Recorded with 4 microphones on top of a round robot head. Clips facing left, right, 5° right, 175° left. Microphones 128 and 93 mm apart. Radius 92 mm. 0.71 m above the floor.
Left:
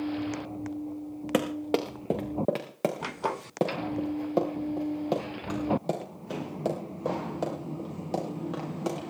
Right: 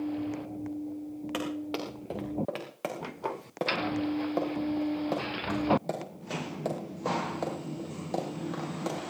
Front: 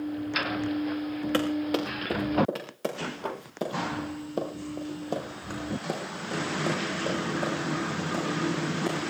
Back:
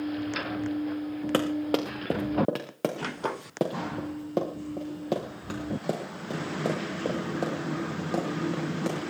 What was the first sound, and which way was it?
Running footsteps, 125° left.